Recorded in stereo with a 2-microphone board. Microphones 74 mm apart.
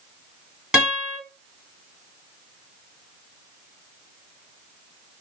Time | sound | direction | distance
0.7 | a guitar | 10° right (ahead or behind) | 2.5 m